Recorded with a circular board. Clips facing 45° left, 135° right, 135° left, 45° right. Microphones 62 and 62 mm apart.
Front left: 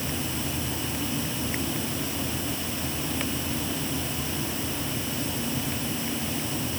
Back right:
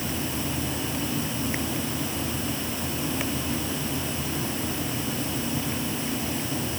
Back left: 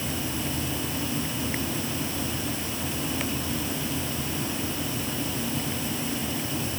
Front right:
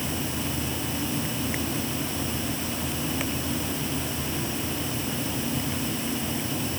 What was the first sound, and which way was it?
Only background noise.